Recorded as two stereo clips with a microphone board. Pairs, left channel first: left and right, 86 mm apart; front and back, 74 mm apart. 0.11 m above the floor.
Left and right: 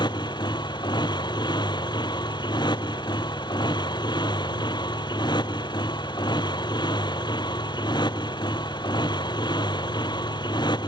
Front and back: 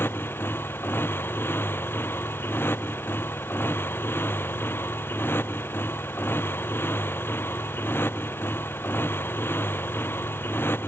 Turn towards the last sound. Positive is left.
turn(degrees=60)